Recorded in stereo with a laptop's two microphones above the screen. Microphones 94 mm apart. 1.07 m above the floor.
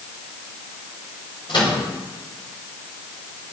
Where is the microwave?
65° left (ahead or behind), 6 m.